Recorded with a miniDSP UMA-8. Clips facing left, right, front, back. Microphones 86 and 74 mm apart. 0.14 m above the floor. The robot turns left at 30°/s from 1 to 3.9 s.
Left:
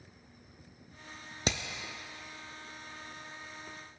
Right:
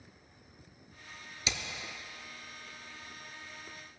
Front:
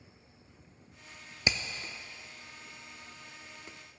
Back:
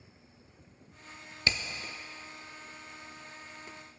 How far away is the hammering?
About 0.8 m.